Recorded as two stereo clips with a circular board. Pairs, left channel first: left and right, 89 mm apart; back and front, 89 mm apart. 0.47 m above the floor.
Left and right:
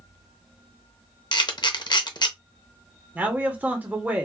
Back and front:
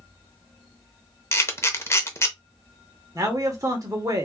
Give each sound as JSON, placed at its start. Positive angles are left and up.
{"t": 1.3, "sound": "a camera shutter", "azimuth_deg": 125, "distance_m": 0.6}
{"t": 3.1, "sound": "a man speaking", "azimuth_deg": -30, "distance_m": 1.1}